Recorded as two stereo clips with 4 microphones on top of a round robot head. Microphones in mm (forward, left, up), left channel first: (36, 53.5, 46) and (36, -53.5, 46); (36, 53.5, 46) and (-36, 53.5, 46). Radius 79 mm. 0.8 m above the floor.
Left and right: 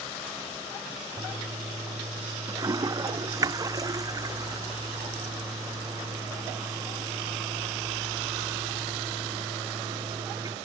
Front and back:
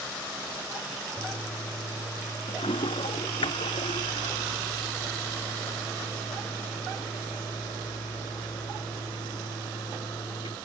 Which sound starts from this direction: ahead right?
A toilet flushing, at 1.2 s.